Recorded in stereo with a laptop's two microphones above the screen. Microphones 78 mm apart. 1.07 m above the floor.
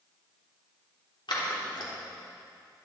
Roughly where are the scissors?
Left.